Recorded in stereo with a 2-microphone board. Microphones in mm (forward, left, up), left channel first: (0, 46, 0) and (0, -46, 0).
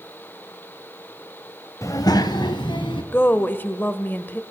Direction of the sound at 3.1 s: 20° left (ahead or behind).